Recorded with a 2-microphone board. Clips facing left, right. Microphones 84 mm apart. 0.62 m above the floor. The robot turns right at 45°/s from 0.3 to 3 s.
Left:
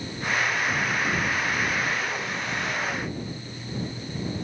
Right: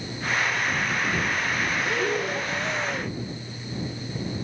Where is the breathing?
70° right; by 3.2 s 15° right.